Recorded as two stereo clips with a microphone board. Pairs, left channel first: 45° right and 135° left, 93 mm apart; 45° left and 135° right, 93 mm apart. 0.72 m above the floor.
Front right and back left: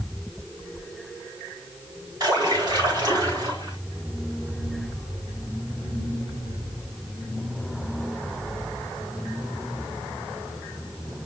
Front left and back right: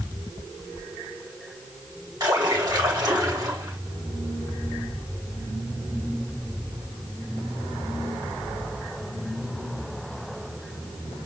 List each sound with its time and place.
2.2 s a splash: 175° left, 6 m